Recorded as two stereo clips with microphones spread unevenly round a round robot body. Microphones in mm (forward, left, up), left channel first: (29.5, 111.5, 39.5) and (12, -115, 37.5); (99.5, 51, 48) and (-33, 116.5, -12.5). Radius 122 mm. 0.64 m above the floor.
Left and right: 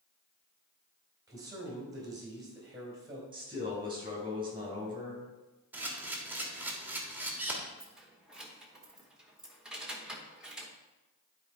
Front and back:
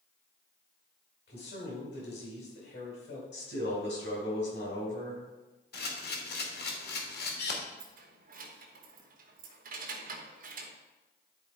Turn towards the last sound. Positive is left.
turn(degrees=180)